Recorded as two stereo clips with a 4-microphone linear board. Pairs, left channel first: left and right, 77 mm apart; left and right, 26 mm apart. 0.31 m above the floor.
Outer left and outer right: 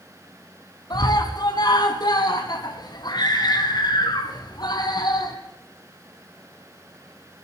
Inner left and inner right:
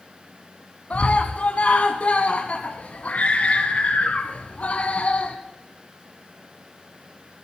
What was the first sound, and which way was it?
A scream, 65° left (ahead or behind).